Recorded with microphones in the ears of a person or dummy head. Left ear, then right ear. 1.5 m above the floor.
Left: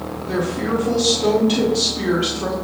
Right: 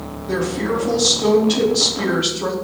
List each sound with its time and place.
0.3 s a woman speaking: centre (ahead or behind), 0.9 m